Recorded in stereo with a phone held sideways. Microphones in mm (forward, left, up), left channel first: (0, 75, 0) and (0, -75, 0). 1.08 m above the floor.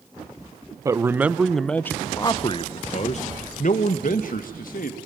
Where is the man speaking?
20° right (ahead or behind), 1.0 m; by 5.0 s 70° left (ahead or behind), 2 m.